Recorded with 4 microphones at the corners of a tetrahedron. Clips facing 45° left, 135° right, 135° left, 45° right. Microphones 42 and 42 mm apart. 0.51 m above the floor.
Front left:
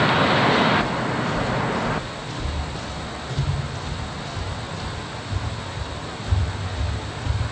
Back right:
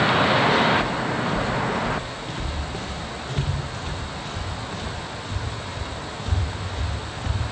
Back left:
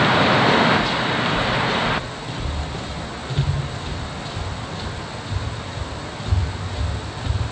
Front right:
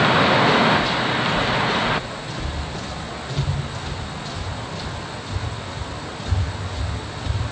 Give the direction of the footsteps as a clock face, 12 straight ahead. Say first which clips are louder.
Front left 1 dB, even; 6 o'clock.